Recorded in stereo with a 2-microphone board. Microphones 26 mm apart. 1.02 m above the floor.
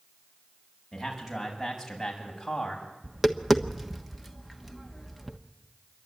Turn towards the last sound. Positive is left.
turn(degrees=-5)  # may be behind; listen again after turning